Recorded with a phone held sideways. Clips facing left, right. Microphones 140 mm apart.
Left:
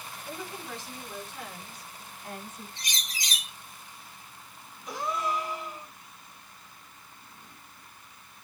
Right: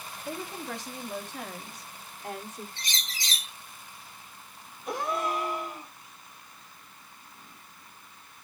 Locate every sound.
0.2 s a woman speaking: 70° right (ahead or behind), 2.5 m; by 2.7 s 85° right, 4 m
2.8 s a bird: 15° left (ahead or behind), 2.5 m
4.9 s a gasp: 55° right (ahead or behind), 1.7 m